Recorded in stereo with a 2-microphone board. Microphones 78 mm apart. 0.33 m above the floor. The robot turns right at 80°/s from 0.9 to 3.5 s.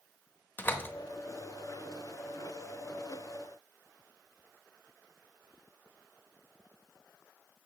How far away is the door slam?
About 0.9 m.